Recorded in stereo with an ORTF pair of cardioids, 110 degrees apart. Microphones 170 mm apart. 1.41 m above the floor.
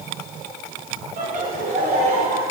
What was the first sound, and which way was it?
Laughter, 60° right.